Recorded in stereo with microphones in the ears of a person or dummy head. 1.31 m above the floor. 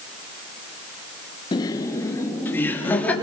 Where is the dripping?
I don't hear dripping.